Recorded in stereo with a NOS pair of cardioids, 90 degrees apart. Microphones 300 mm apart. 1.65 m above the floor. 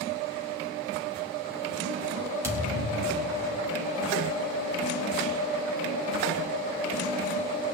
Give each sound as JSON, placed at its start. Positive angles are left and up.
{"t": 2.4, "sound": "a thud", "azimuth_deg": -10, "distance_m": 4.0}